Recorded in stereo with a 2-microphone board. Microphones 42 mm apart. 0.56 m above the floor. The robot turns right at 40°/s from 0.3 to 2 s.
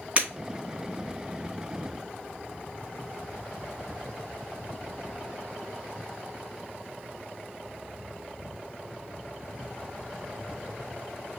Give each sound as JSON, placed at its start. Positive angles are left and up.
{"t": 0.2, "sound": "breaking glass", "side_deg": -30, "distance_m": 3.0}